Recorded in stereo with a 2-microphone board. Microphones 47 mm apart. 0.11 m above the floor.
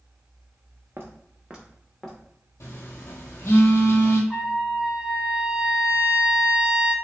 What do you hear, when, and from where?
1.0 s footsteps: 55° right (ahead or behind), 0.6 m; by 2.2 s 10° left (ahead or behind), 0.8 m
2.6 s a phone buzzing: 75° left (ahead or behind), 0.6 m
4.3 s a trumpet: 20° right (ahead or behind), 0.5 m